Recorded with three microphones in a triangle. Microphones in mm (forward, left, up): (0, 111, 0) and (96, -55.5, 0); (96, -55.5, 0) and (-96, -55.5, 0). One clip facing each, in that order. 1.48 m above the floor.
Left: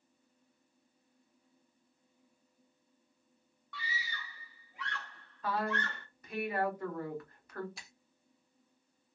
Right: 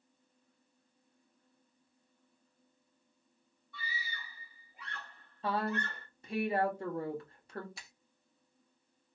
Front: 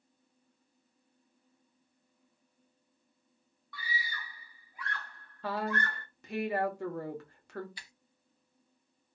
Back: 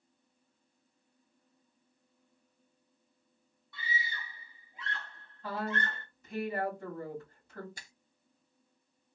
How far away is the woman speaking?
About 1.3 m.